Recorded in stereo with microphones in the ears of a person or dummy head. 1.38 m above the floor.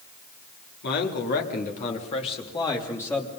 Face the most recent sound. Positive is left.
turn(degrees=10)  # may be behind; listen again after turning